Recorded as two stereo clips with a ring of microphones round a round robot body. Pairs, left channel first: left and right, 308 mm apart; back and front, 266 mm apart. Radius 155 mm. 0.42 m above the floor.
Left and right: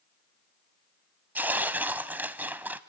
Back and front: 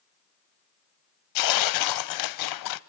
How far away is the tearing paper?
About 0.6 m.